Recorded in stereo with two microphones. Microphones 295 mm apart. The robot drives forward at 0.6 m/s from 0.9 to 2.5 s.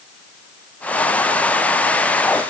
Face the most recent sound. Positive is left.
No sound to turn to.